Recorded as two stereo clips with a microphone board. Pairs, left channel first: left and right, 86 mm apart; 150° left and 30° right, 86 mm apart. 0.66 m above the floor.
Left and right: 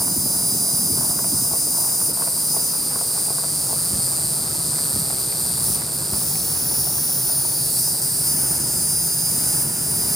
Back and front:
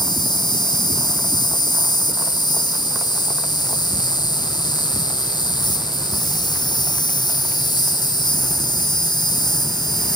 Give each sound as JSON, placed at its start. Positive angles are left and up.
{"t": 0.0, "sound": "an insect", "azimuth_deg": 180, "distance_m": 1.0}